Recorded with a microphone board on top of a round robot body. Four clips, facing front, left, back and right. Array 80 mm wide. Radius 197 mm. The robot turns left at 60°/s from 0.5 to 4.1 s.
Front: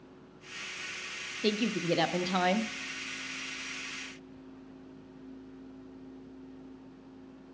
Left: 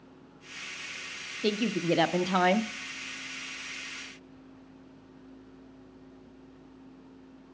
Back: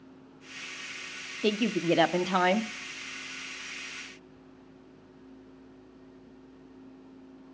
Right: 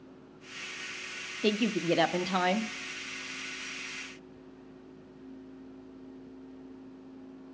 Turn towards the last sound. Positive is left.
turn(degrees=50)